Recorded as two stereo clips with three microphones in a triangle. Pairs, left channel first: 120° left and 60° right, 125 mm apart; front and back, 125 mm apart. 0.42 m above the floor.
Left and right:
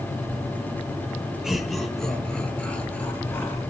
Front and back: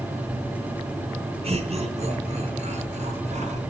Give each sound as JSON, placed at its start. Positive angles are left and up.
{"t": 1.4, "sound": "laughter", "azimuth_deg": -145, "distance_m": 4.0}